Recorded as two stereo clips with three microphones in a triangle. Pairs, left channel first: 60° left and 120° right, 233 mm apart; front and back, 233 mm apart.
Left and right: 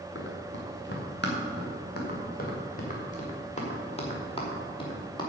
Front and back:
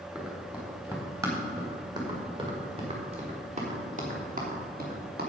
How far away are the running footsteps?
About 5 m.